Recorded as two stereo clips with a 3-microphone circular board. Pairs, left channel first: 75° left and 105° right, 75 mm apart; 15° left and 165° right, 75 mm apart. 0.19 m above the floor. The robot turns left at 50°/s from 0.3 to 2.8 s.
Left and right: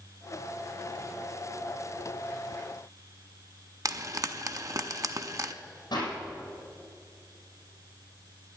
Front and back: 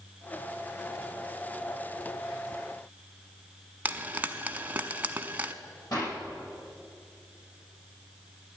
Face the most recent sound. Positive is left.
turn(degrees=50)